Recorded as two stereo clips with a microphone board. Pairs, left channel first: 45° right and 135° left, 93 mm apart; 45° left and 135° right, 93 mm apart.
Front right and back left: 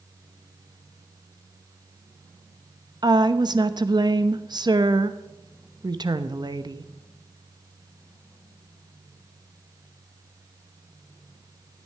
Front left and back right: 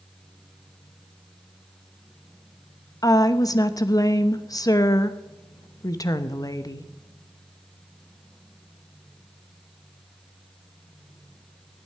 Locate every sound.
3.0 s a woman speaking: 95° left, 0.9 m